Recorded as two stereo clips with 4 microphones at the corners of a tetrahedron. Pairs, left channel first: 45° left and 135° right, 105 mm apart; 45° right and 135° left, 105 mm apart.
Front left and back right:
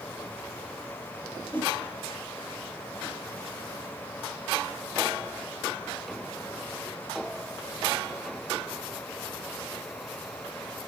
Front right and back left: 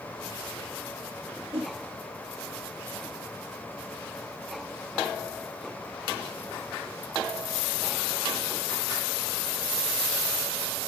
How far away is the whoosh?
About 5.5 m.